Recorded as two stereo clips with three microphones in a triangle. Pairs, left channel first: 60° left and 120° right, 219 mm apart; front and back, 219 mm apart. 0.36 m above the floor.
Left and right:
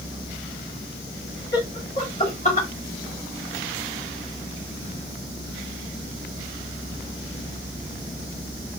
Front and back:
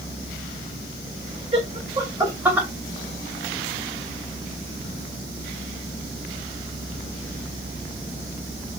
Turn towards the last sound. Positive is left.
turn(degrees=95)